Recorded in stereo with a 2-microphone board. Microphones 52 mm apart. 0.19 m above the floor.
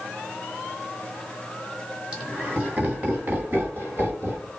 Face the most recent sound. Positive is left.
turn(degrees=-45)  # may be behind; listen again after turning